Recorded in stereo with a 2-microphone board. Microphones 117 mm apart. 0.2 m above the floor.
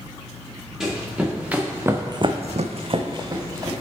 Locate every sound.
0.8 s running footsteps: 5° right (ahead or behind), 2 m; by 3.7 s 30° right (ahead or behind), 1.5 m